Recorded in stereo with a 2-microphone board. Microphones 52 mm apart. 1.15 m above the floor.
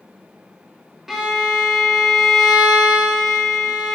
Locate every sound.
1.1 s a violin: 5° right (ahead or behind), 0.7 m